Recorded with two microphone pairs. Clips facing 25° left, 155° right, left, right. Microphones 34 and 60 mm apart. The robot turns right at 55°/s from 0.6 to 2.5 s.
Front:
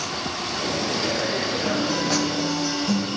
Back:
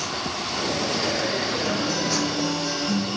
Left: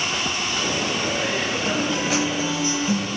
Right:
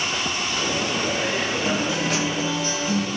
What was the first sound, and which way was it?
A guitar, 20° right.